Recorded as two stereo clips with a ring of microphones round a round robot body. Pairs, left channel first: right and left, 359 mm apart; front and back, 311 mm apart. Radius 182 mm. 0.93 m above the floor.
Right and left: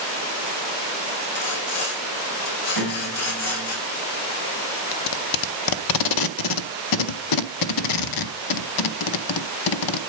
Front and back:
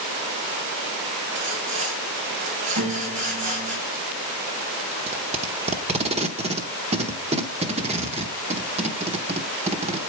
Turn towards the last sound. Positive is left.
turn(degrees=-110)